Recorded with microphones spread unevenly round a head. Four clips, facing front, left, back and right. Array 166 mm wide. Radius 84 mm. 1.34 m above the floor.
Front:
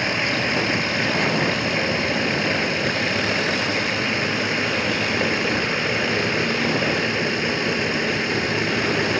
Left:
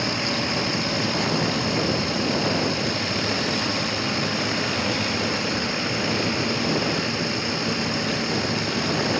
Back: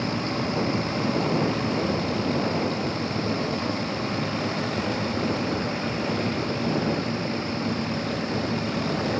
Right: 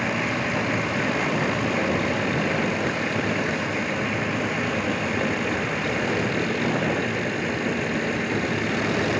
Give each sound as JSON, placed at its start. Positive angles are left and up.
{"t": 0.0, "sound": "running water", "azimuth_deg": -15}